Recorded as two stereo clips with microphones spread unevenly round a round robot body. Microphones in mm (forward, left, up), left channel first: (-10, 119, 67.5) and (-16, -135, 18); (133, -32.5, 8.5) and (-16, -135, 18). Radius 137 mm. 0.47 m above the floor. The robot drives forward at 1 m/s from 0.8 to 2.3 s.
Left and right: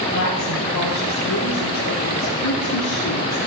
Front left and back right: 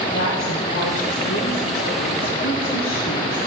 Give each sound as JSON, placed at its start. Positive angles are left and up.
{"t": 0.1, "sound": "a woman speaking", "azimuth_deg": 75, "distance_m": 7.5}